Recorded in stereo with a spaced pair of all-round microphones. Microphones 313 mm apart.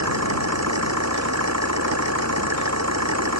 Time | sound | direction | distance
0.0 | an engine running | 55° right (ahead or behind) | ?